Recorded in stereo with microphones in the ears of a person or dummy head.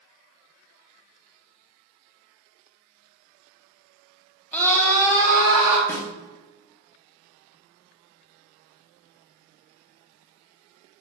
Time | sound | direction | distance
4.5 | a scream | 10° left (ahead or behind) | 0.7 m
5.9 | a snare drum | 10° left (ahead or behind) | 0.7 m